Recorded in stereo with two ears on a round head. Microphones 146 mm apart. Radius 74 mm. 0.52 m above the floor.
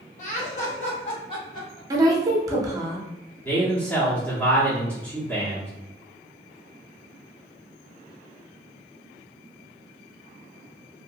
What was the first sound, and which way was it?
Laughter, 50° left (ahead or behind).